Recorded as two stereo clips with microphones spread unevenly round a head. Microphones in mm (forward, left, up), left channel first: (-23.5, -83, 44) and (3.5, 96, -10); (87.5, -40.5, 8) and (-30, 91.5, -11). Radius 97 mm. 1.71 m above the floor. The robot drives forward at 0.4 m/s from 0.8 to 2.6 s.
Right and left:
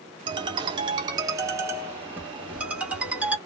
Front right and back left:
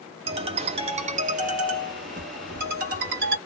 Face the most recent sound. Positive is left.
turn(degrees=175)